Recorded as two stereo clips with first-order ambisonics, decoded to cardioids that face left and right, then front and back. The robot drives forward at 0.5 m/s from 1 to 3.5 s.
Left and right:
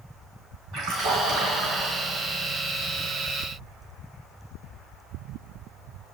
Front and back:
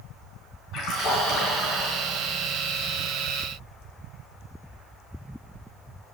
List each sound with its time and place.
0.7 s a splash: 35° right, 4 m; by 2.1 s 40° right, 3.5 m